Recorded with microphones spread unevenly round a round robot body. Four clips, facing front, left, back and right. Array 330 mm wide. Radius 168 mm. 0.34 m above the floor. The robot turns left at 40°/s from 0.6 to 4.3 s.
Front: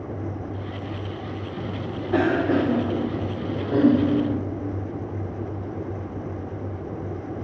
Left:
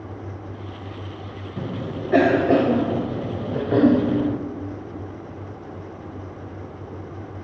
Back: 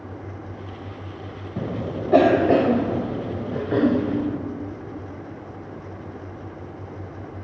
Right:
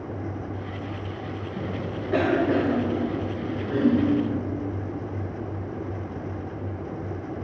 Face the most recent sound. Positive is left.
turn(degrees=80)